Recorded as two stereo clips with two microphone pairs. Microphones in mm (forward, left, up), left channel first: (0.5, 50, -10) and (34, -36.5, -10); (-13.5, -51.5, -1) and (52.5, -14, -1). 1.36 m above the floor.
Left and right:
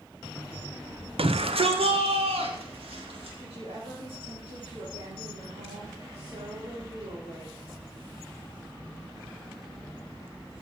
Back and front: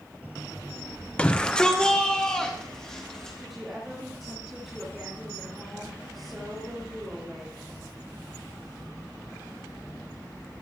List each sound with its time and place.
1.2 s a shout: 75° right, 0.8 m; by 3.4 s 70° right, 4 m
3.4 s a woman speaking: 60° right, 3.5 m